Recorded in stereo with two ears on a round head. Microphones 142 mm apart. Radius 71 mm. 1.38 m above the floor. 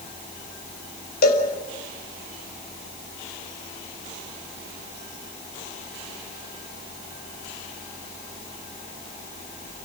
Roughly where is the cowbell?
Left.